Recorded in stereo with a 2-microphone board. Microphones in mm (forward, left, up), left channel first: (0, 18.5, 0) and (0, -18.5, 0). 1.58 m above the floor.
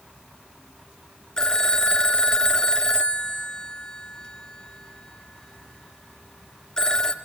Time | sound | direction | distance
1.4 | a phone ringing | 20° left (ahead or behind) | 0.5 m